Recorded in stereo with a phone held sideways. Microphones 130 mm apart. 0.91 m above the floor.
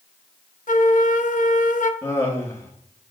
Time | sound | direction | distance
0.7 | a flute | 85° left | 0.5 m
2.0 | laughter | 20° left (ahead or behind) | 1.5 m